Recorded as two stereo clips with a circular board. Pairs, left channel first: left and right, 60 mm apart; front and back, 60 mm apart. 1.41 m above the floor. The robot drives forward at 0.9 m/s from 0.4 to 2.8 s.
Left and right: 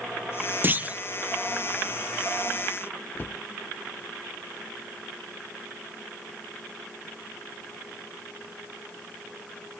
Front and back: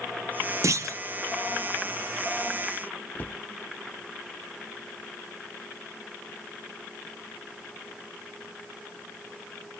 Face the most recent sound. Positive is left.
turn(degrees=50)